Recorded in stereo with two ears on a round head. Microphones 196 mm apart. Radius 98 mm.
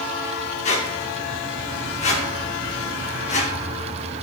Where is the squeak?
30° left (ahead or behind), 0.9 m.